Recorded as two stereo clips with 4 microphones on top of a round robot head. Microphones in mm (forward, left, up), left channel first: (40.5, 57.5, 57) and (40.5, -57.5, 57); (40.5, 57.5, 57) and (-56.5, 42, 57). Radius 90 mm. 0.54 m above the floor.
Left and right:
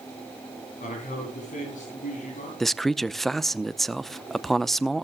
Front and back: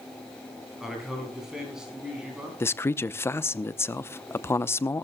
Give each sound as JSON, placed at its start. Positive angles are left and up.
{"t": 0.8, "sound": "a man speaking", "azimuth_deg": 105, "distance_m": 9.5}
{"t": 2.6, "sound": "a man speaking", "azimuth_deg": 5, "distance_m": 0.7}